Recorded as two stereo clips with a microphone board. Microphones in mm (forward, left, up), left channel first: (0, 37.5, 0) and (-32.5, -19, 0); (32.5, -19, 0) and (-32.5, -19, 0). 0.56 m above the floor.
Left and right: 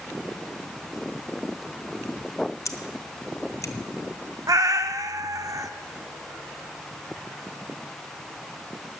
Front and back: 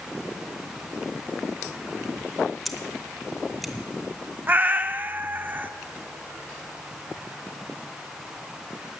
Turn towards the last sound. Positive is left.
turn(degrees=-120)